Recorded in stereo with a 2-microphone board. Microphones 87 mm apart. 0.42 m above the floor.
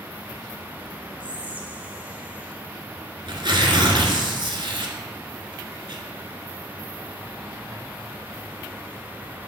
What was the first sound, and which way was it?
Whispering, 15° right (ahead or behind).